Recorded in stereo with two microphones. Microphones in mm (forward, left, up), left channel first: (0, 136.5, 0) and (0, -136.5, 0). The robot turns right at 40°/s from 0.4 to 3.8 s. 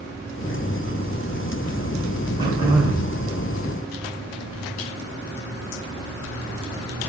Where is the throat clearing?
15° right (ahead or behind), 1.6 m; by 3.1 s 5° left (ahead or behind), 1.6 m.